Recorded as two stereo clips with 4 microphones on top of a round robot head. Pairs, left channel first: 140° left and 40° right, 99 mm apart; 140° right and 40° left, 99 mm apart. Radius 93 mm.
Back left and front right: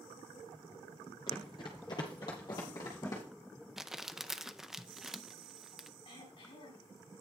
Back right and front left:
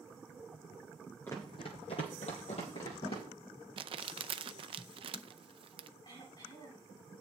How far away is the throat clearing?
About 7.5 m.